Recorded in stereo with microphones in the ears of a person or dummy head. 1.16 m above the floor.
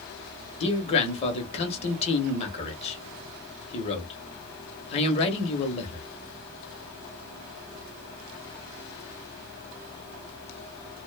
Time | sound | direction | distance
0.6 | a man speaking | 30° left (ahead or behind) | 0.9 m